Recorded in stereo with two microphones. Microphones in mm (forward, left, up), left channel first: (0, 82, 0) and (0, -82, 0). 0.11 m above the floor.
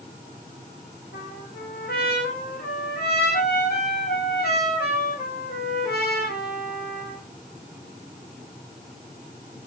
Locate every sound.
1.1 s a trumpet: 75° left (ahead or behind), 6.5 m